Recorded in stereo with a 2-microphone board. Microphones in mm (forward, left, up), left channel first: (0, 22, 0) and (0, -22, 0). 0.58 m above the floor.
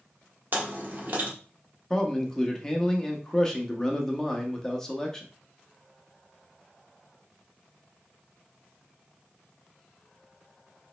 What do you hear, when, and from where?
0.5 s chewing: 50° right (ahead or behind), 1.0 m
1.9 s a man speaking: 15° left (ahead or behind), 0.6 m